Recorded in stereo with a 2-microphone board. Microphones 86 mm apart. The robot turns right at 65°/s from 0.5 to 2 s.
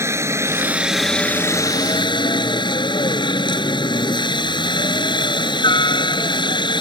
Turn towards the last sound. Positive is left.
turn(degrees=65)